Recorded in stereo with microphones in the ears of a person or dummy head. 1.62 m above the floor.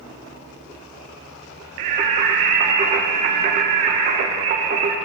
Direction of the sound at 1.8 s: 35° right (ahead or behind).